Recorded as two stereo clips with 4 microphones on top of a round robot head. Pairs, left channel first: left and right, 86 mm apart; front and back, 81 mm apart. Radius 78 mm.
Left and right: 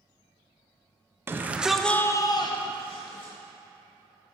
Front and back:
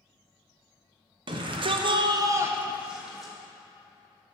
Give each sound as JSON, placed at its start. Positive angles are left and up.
{"t": 1.3, "sound": "a shout", "azimuth_deg": -155, "distance_m": 1.0}